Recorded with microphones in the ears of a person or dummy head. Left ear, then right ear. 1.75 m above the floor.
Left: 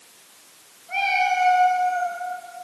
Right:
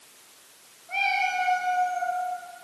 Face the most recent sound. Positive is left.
turn(degrees=0)  # may be behind; listen again after turning